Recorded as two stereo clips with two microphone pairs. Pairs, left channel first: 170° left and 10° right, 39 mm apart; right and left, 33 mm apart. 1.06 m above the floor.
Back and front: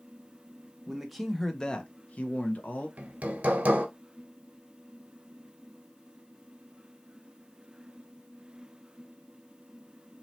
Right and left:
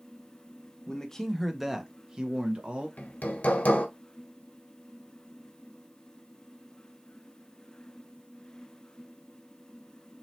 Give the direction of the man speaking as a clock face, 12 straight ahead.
2 o'clock.